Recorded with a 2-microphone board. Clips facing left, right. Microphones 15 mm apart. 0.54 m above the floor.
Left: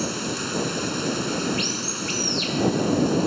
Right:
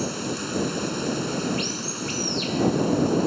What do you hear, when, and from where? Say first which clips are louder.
0.0 s running water: left 1 dB; 15° left (ahead or behind)